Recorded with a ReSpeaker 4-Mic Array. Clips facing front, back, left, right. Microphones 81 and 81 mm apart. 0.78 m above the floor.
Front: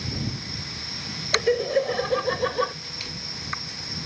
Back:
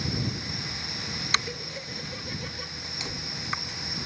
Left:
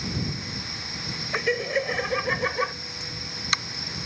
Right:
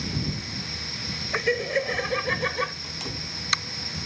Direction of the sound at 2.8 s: 115° right.